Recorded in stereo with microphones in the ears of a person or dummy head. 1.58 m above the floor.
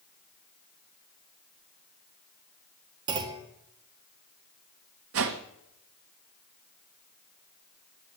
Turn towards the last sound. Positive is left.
turn(degrees=-70)  # may be behind; listen again after turning